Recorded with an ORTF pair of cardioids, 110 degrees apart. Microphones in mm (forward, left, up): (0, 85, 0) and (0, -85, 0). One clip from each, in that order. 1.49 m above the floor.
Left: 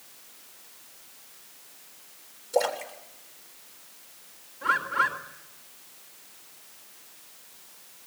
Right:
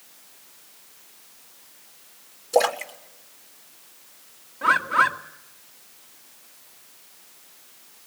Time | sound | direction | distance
2.5 | a splash | 45° right | 2.5 m
4.6 | a bird | 55° right | 2.5 m